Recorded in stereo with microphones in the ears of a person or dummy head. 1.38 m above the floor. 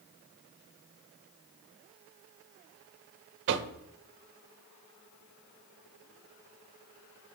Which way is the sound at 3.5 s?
60° right (ahead or behind).